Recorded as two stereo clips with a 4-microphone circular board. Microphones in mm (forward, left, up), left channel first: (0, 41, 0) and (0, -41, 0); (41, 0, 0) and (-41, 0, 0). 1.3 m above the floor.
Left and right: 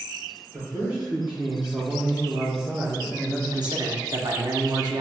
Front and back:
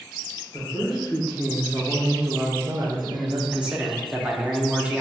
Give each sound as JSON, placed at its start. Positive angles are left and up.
{"t": 0.5, "sound": "a man speaking", "azimuth_deg": -80, "distance_m": 1.4}
{"t": 3.5, "sound": "a man speaking", "azimuth_deg": -105, "distance_m": 0.8}